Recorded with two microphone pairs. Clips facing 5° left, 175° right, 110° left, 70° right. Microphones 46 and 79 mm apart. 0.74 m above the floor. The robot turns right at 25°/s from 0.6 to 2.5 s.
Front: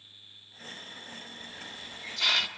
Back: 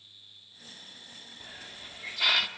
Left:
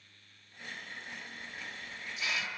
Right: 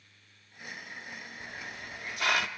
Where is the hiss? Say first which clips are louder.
Front 2 dB, right 2 dB; 110° right, 0.7 m; by 2.5 s 80° right, 0.7 m.